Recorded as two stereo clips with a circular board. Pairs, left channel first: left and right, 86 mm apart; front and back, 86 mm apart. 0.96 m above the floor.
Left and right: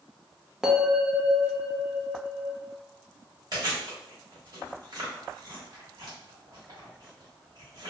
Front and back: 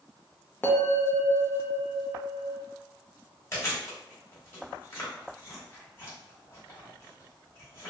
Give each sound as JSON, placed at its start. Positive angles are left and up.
{"t": 0.6, "sound": "a bell", "azimuth_deg": -15, "distance_m": 0.6}
{"t": 3.5, "sound": "chewing", "azimuth_deg": -55, "distance_m": 1.3}